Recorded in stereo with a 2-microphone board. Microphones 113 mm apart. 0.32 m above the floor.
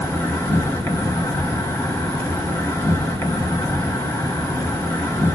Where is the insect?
25° left (ahead or behind), 0.9 m.